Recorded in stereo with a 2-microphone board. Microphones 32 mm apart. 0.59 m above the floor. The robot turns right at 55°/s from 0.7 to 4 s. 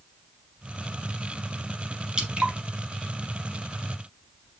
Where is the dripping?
25° right (ahead or behind), 0.8 m; by 2.5 s 40° right (ahead or behind), 0.8 m.